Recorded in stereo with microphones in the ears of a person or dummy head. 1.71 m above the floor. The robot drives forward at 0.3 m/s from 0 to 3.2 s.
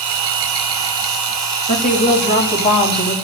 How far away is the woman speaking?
About 3.5 m.